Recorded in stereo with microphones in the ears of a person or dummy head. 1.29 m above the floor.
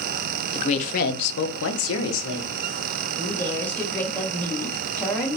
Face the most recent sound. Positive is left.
turn(degrees=0)  # may be behind; listen again after turning